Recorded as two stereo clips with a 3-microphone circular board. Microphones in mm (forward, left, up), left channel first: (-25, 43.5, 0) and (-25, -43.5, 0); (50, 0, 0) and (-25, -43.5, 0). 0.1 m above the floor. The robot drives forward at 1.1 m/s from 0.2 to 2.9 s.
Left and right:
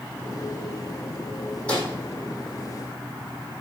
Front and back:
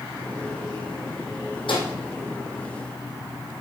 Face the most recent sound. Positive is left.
turn(degrees=25)